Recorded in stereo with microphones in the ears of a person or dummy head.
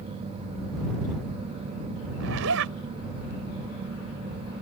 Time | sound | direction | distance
2.2 | a zipper | 75° right (ahead or behind) | ?